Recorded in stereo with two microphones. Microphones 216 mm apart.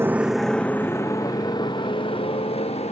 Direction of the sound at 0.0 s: 10° right (ahead or behind).